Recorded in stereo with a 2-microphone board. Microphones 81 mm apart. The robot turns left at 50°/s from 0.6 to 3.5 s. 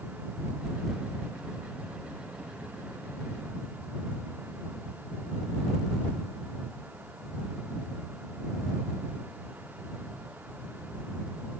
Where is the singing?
No singing in this recording.